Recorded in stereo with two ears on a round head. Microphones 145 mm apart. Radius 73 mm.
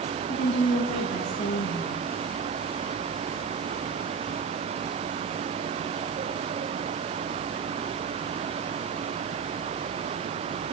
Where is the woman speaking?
40° left (ahead or behind), 9 m.